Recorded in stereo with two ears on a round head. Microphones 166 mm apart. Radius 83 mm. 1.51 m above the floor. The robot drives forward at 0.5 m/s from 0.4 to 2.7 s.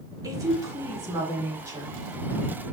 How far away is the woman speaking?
About 4 m.